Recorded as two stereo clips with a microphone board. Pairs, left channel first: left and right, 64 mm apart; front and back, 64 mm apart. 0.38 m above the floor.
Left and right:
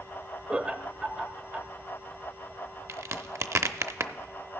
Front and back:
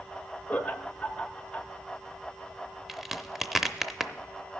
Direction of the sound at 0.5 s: 55° right.